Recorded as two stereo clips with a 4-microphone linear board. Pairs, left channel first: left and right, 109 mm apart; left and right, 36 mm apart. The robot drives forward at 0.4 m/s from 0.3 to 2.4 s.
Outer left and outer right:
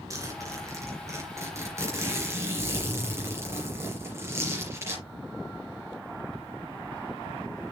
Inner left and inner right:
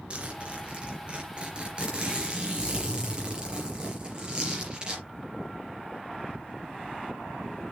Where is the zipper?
30° right (ahead or behind), 3.5 m; by 5.0 s 25° right (ahead or behind), 4 m.